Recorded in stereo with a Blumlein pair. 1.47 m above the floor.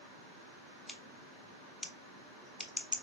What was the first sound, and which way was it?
Scissors, 5° left.